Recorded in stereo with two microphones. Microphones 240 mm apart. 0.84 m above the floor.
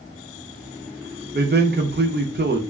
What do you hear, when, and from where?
1.3 s a man speaking: 45° right (ahead or behind), 0.7 m